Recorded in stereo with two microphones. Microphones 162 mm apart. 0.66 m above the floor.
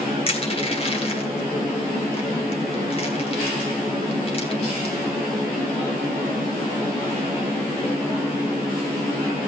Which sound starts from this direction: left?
Crushing, at 0.3 s.